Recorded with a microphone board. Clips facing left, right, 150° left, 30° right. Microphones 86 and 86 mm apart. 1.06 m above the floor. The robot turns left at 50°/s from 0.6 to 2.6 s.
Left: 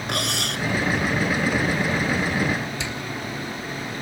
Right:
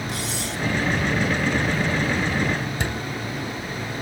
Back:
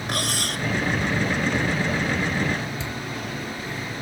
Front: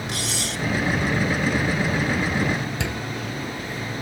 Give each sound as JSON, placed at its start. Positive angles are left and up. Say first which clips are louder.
{"t": 0.1, "sound": "cutlery clinking", "louder": "left 2 dB, back 2 dB", "azimuth_deg": 110}
{"t": 2.8, "sound": "a door slam", "louder": "right 3 dB, front 3 dB", "azimuth_deg": -50}